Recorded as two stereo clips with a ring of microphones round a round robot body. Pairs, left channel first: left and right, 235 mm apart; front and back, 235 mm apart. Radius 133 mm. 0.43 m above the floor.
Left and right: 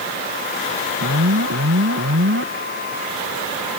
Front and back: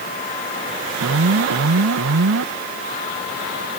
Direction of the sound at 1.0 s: 135° right.